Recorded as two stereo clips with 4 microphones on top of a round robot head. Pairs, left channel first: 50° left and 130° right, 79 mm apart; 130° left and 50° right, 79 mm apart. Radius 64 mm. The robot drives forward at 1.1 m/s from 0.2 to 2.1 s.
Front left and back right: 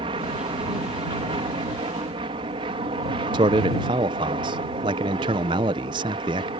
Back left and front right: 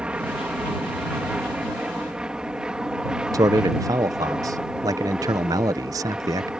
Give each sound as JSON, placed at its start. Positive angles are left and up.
{"t": 0.0, "sound": "an aircraft", "azimuth_deg": -130}
{"t": 3.3, "sound": "a man speaking", "azimuth_deg": -100}